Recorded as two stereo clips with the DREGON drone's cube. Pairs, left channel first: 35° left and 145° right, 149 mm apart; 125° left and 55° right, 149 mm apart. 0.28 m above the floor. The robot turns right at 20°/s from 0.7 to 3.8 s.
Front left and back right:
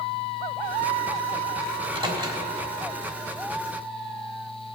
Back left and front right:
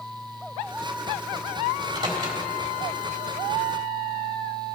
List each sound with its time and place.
1.7 s a microwave: 110° right, 1.6 m; by 2.4 s 95° right, 1.6 m